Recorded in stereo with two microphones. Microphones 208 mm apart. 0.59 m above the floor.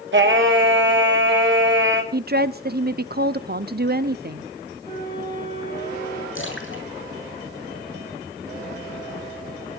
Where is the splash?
75° left (ahead or behind), 7.5 m.